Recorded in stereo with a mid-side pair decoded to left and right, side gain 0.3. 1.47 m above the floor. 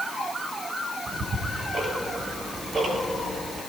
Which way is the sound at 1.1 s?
70° right.